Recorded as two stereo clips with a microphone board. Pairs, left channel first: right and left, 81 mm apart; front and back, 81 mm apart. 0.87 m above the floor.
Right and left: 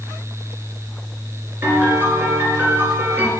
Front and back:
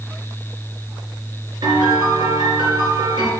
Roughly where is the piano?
Behind.